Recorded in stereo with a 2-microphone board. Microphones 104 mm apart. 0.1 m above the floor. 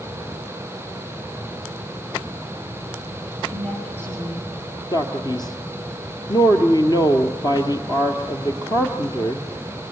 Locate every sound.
3.5 s a woman speaking: 20° left (ahead or behind), 9 m
4.9 s a man speaking: 45° left (ahead or behind), 1.9 m